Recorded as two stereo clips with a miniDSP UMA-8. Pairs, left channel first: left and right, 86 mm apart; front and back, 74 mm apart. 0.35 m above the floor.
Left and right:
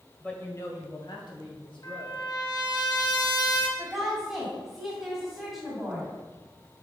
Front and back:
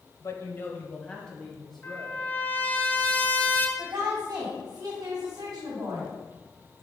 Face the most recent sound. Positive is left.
turn(degrees=-175)